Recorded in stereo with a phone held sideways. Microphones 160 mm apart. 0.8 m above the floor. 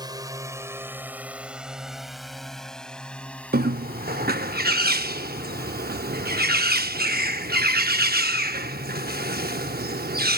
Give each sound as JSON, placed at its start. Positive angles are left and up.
{"t": 0.0, "sound": "a drone", "side_deg": -25}
{"t": 3.5, "sound": "a bird", "side_deg": -65}